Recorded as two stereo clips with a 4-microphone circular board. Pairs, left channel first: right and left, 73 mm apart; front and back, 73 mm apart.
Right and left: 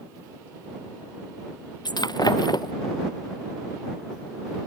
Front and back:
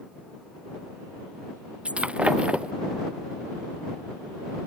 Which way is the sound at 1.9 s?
105° right.